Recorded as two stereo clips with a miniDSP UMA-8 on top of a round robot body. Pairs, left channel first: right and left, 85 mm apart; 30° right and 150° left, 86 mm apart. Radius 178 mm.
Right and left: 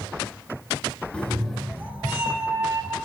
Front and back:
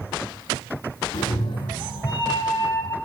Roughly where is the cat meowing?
Ahead.